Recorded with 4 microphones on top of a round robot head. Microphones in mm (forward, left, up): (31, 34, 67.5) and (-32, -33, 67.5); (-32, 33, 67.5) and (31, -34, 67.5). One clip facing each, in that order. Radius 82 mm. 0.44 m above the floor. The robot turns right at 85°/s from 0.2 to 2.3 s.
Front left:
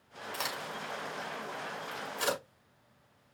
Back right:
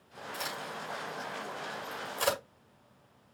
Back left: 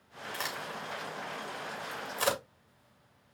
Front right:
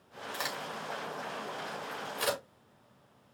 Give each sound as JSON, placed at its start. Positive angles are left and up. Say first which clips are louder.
{"t": 0.3, "sound": "a crack", "louder": "front left 1 dB, even", "azimuth_deg": 25, "distance_m": 4.5}